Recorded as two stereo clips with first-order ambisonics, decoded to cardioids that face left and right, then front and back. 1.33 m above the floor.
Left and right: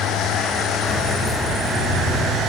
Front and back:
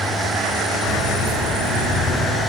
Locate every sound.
0.8 s keys jangling: 15° right, 2.5 m; by 2.2 s 50° right, 3.5 m